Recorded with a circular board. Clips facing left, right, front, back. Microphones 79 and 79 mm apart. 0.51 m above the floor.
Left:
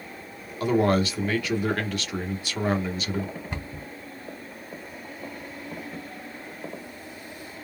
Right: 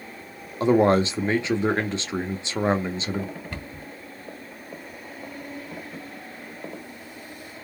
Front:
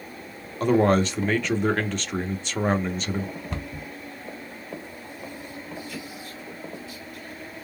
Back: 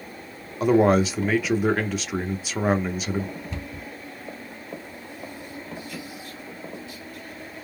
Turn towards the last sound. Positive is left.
turn(degrees=20)